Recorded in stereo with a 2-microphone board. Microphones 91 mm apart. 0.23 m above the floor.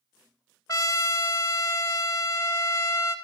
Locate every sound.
0.7 s a trumpet: 35° left (ahead or behind), 0.7 m